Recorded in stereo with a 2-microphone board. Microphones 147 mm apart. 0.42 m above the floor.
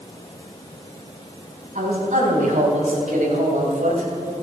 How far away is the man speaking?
About 4 m.